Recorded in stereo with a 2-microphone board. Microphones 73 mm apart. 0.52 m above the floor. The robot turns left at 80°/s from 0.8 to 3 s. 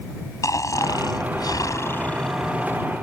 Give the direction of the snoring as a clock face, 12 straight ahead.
8 o'clock.